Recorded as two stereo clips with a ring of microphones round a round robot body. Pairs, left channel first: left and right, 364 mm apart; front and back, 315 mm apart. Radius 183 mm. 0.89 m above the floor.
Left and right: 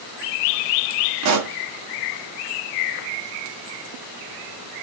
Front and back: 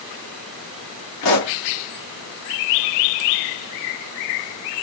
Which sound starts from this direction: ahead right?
A pop, at 1.2 s.